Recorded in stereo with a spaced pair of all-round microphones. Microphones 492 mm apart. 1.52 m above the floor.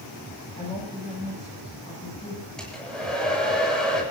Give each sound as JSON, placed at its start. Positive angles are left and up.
{"t": 0.6, "sound": "a woman speaking", "side_deg": 10, "distance_m": 8.0}
{"t": 2.6, "sound": "a hair dryer", "side_deg": 0, "distance_m": 7.0}